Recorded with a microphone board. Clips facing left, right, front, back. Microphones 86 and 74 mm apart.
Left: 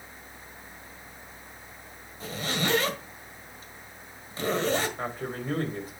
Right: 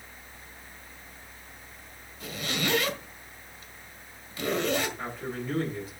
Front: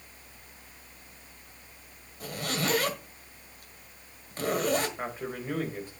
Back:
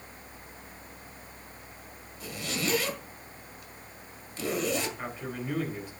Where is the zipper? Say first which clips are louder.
Left 2 dB, front 2 dB; 35° left, 1.8 m.